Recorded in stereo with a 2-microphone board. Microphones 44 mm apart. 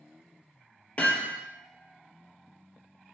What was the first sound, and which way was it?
Hammering, 35° left (ahead or behind).